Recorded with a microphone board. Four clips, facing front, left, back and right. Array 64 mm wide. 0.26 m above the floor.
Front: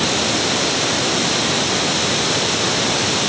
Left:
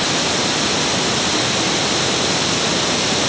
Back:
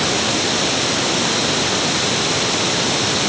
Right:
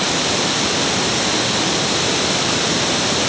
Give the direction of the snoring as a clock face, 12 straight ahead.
No snoring in this recording.